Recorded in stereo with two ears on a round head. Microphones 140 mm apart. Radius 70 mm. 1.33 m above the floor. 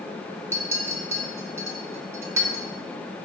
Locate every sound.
0.5 s a clink: 15° right (ahead or behind), 0.7 m